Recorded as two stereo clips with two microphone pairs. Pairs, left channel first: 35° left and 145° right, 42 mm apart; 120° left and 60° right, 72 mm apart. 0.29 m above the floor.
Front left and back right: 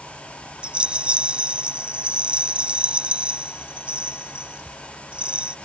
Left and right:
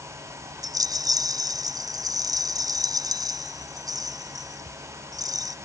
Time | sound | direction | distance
0.6 | a rattle | 85° right | ?